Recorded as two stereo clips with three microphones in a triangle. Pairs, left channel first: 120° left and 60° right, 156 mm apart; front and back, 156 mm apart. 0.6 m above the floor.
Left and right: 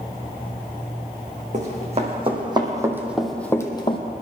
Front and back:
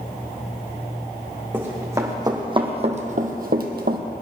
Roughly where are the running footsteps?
Right.